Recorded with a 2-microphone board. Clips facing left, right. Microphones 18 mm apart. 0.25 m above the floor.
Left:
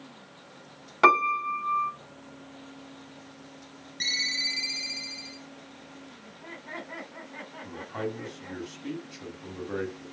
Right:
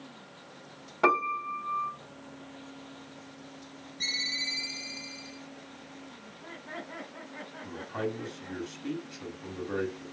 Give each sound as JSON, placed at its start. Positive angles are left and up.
{"t": 1.0, "sound": "a piano", "side_deg": 60, "distance_m": 1.2}
{"t": 4.0, "sound": "a ringtone", "side_deg": 65, "distance_m": 2.5}
{"t": 6.2, "sound": "laughter", "side_deg": 55, "distance_m": 2.0}
{"t": 7.6, "sound": "a man speaking", "side_deg": 10, "distance_m": 2.5}